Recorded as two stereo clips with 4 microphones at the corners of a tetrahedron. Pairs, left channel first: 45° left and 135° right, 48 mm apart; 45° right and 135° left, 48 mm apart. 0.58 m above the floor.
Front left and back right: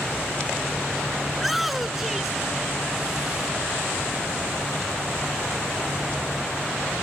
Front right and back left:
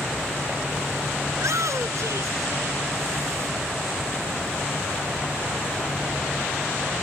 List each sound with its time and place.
1.3 s a shout: 135° left; by 3.5 s 145° left